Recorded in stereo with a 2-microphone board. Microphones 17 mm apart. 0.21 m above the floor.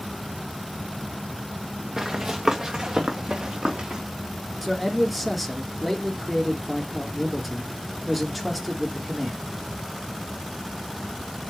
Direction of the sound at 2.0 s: 35° right (ahead or behind).